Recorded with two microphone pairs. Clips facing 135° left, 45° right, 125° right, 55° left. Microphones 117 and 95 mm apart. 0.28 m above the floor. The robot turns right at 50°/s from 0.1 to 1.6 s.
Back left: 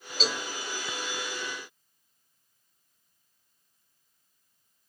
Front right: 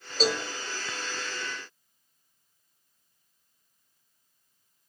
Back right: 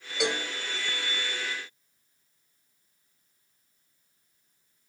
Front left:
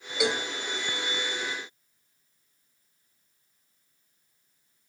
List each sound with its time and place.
0.2 s a cowbell: 35° right, 0.9 m; by 0.5 s 20° right, 0.9 m